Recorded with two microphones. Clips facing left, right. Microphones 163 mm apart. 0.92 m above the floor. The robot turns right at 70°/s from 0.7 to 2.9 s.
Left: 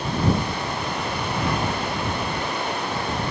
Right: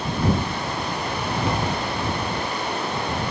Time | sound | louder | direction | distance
1.5 | tapping | even | 25° right (ahead or behind) | ?